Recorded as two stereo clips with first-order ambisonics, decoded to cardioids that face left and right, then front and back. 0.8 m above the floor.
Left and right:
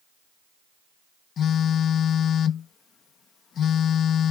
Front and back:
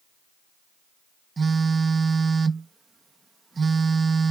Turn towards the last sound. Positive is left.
turn(degrees=120)